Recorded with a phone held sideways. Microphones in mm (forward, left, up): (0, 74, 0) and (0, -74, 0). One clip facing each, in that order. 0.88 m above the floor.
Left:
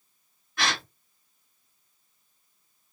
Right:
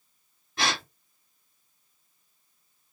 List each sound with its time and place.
0.6 s a gasp: 25° right (ahead or behind), 2.0 m